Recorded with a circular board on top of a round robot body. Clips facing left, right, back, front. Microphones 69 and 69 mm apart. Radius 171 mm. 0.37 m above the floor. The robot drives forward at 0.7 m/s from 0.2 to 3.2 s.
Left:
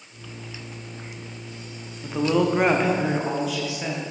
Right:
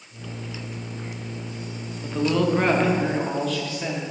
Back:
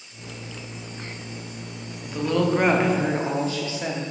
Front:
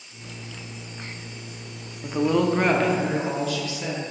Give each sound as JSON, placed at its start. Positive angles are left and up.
{"t": 2.0, "sound": "a woman speaking", "azimuth_deg": 20, "distance_m": 0.9}